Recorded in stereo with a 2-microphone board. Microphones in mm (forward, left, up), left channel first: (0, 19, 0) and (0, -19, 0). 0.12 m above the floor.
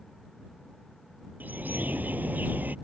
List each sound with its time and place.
1.4 s a bird: 55° right (ahead or behind)